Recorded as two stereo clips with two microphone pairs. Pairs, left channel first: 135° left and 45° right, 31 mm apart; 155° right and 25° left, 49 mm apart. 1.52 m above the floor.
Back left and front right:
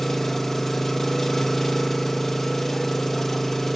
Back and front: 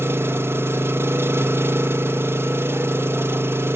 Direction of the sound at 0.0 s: 55° left.